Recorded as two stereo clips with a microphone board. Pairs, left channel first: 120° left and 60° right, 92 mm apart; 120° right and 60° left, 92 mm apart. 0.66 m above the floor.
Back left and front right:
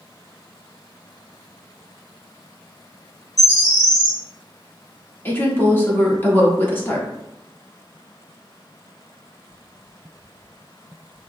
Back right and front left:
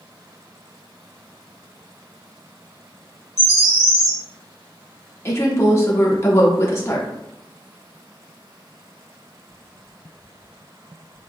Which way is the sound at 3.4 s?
Straight behind.